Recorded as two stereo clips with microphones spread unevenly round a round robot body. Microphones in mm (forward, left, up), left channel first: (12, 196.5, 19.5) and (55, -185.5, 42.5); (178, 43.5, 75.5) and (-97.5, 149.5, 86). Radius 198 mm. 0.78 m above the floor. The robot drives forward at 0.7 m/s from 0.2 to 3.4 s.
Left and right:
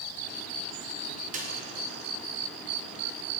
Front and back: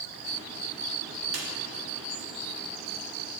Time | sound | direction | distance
1.3 | a snare drum | 155° right | 0.6 m